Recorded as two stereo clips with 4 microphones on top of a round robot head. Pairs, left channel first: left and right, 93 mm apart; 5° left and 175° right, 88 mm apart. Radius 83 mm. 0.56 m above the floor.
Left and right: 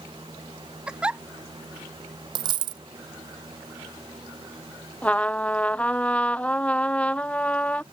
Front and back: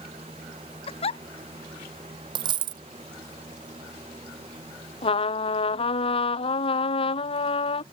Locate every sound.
0.9 s a giggle: 10° right
2.4 s a dropped coin: 135° right
5.0 s a trumpet: 15° left